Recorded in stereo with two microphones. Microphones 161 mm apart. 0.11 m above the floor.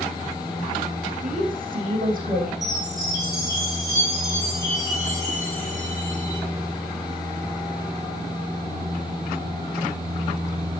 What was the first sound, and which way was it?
A woman speaking, 60° right (ahead or behind).